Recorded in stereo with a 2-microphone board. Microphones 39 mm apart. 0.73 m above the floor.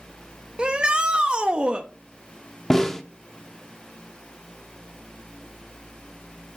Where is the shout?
25° right (ahead or behind), 0.8 m.